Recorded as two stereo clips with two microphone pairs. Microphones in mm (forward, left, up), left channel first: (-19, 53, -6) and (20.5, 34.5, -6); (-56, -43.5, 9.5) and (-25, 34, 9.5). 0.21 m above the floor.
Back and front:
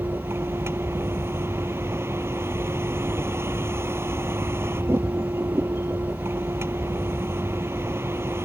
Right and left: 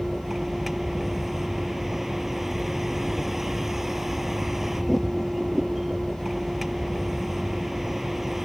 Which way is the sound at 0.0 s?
20° right.